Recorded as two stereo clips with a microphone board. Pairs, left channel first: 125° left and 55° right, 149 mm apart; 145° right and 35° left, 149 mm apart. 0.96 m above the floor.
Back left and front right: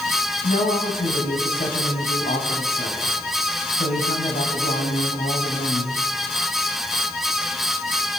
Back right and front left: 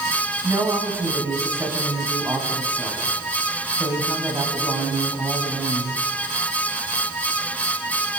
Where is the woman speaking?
110° left, 7 m.